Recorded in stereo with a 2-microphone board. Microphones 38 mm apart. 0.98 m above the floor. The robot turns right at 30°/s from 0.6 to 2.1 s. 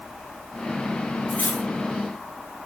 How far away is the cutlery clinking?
About 2 m.